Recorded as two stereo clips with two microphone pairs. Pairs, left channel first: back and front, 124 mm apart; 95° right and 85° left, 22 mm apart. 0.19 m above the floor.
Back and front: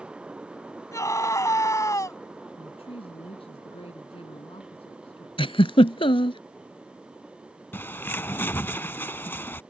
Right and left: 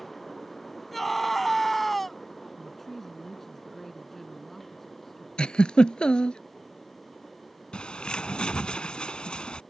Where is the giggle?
140° right.